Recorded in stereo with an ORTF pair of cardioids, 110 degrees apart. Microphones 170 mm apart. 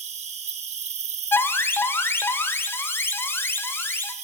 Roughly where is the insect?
Ahead right.